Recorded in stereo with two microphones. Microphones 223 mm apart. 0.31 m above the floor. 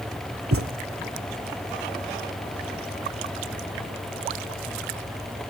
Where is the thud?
80° right, 1.5 m.